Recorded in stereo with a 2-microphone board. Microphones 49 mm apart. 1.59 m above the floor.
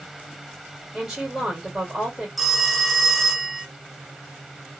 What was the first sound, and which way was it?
A woman speaking, 5° right (ahead or behind).